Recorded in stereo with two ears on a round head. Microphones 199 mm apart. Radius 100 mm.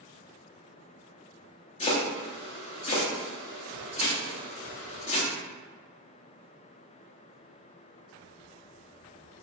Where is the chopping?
30° left (ahead or behind), 0.8 m.